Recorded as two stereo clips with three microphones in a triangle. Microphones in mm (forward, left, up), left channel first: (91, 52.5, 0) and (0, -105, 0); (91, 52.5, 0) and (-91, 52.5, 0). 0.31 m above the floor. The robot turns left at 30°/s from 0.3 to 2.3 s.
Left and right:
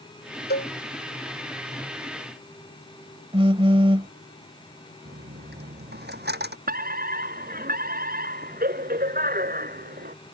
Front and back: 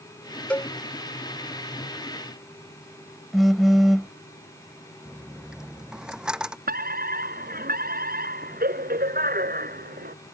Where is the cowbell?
85° left; by 0.7 s 75° left.